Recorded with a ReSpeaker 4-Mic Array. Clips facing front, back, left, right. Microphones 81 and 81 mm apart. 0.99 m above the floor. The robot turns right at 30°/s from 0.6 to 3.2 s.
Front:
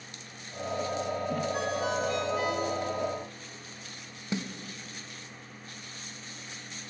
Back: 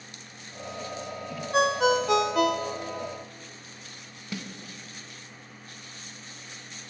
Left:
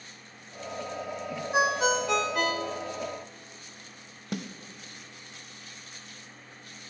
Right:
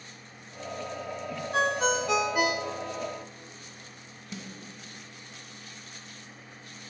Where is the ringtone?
165° left, 0.5 m; by 3.1 s 150° right, 0.5 m.